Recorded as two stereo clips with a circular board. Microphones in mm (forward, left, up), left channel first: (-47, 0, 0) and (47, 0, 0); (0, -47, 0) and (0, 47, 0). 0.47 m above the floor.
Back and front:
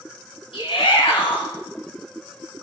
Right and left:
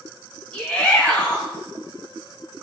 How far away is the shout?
About 2.5 m.